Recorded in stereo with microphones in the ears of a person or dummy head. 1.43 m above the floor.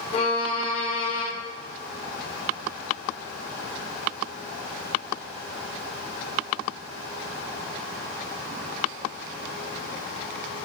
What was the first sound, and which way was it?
A violin, 35° left (ahead or behind).